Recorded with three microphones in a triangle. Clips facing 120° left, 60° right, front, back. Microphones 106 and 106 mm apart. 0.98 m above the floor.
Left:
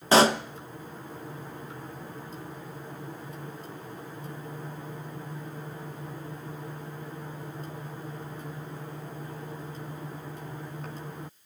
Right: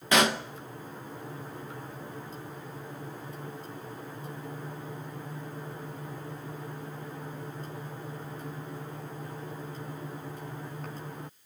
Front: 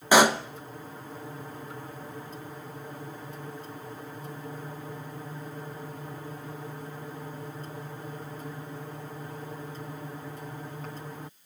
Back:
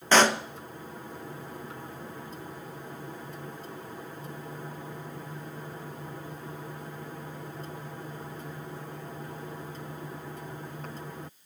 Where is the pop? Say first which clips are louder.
Left 5 dB, front 2 dB; 75° left, 0.6 m.